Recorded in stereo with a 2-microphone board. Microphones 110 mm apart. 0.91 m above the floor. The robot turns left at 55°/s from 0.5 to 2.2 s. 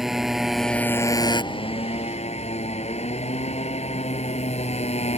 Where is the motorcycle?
175° right; by 5.2 s 90° left.